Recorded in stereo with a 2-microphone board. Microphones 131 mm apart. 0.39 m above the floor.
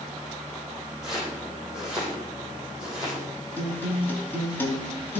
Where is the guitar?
15° left (ahead or behind), 3 m.